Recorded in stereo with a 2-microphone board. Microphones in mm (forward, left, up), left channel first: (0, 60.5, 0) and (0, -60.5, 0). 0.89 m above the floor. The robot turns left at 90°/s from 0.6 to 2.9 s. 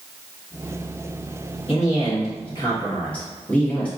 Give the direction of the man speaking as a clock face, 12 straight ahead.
8 o'clock.